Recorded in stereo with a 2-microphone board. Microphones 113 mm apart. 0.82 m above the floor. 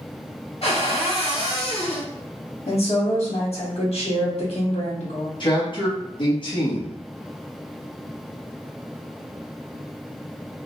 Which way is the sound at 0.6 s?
55° left (ahead or behind).